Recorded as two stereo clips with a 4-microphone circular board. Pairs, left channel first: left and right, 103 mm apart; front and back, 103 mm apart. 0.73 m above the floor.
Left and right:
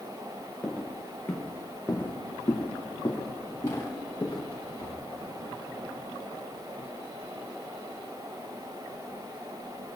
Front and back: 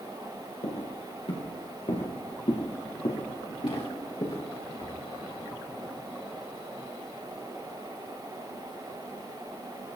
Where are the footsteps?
10° left, 3.5 m; by 5.0 s 40° left, 5 m.